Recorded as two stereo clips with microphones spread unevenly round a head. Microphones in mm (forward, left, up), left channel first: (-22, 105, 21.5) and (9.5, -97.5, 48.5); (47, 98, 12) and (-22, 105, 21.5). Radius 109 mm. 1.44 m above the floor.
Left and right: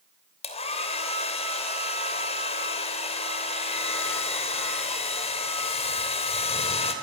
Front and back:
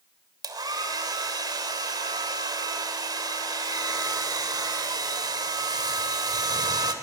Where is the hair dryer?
165° left, 3 m.